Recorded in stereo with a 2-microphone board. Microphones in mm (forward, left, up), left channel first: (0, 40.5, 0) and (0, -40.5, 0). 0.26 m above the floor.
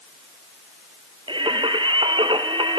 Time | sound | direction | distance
1.3 | singing | 85° right | 1.6 m